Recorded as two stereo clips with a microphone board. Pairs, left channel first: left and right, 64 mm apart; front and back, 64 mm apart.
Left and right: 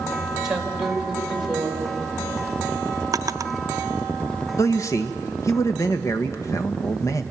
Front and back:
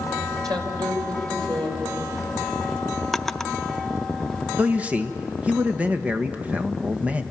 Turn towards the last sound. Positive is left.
turn(degrees=115)